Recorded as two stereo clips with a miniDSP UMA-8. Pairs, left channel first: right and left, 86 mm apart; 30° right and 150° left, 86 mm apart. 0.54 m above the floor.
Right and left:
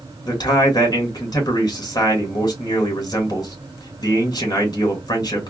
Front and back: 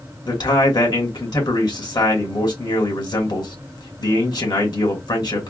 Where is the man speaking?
55° right, 1.8 m.